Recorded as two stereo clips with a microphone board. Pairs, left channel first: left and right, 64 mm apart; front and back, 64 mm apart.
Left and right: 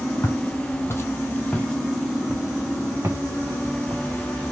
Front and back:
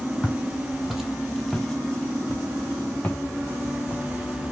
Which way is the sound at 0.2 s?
100° left.